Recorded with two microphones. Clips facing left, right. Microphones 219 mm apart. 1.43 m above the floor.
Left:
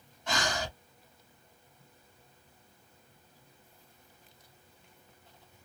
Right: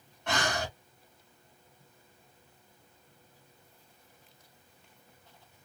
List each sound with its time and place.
0.3 s breathing: 65° right (ahead or behind), 1.4 m